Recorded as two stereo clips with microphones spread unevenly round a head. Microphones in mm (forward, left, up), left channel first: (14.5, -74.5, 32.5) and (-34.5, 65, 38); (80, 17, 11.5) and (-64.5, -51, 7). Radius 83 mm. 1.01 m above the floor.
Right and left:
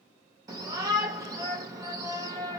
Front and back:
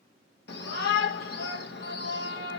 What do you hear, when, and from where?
0.5 s a shout: 45° left, 1.1 m